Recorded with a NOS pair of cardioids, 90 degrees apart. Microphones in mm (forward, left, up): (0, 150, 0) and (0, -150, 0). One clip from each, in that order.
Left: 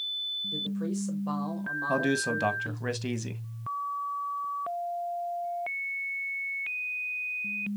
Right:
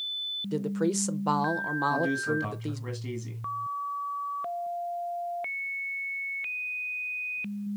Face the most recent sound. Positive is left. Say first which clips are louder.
# left 5 dB
turn(degrees=50)